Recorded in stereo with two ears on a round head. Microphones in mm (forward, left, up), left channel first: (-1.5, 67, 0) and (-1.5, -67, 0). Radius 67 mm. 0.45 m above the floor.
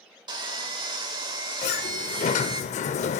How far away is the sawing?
About 1.3 m.